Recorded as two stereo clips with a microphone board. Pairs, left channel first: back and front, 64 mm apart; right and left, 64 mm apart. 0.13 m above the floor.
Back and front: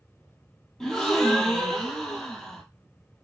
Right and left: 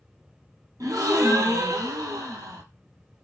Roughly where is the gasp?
Left.